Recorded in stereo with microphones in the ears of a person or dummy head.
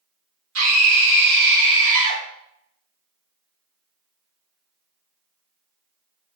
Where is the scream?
70° right (ahead or behind), 1.6 m; by 2.2 s 20° right (ahead or behind), 1.1 m.